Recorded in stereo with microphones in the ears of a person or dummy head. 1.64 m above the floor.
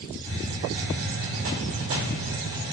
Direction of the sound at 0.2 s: 70° right (ahead or behind).